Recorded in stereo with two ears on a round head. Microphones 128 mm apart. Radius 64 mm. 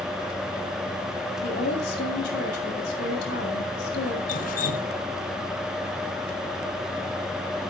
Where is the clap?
I don't hear a clap.